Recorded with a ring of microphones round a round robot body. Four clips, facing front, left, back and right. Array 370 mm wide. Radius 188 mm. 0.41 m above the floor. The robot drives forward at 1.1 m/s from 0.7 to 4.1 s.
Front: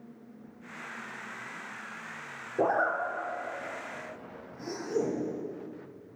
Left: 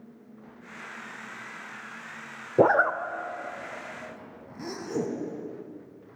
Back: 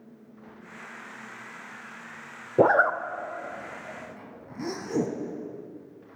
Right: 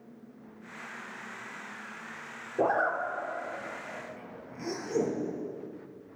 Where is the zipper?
135° left, 0.7 m; by 5.1 s 170° left, 2 m.